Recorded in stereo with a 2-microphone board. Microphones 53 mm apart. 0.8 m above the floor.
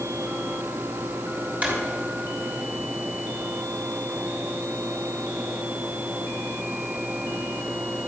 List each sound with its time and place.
1.6 s a drawer: 30° right (ahead or behind), 3 m